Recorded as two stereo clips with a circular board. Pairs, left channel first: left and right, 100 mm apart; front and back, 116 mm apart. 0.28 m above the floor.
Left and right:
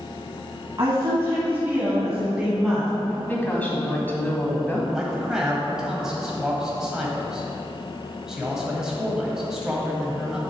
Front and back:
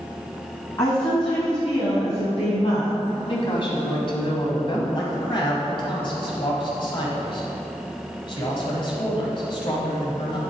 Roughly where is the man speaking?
Ahead.